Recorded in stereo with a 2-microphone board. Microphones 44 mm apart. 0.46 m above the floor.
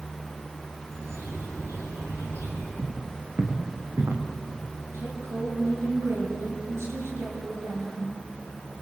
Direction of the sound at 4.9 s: 85° right.